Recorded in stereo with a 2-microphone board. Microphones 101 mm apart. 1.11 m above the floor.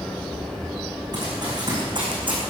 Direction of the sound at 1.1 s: 45° right (ahead or behind).